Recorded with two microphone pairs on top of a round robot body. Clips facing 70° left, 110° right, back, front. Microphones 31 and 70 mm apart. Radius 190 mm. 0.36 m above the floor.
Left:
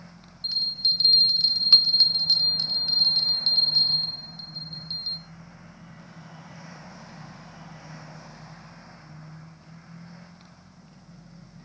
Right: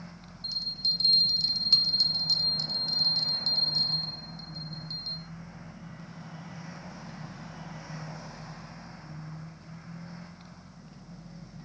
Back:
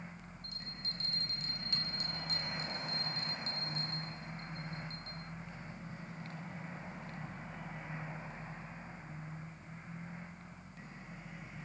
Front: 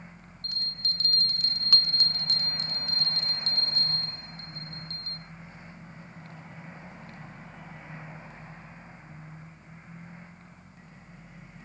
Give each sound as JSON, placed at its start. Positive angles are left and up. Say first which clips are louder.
{"t": 0.4, "sound": "a bell", "louder": "left 6 dB, front 11 dB", "azimuth_deg": 20, "distance_m": 0.5}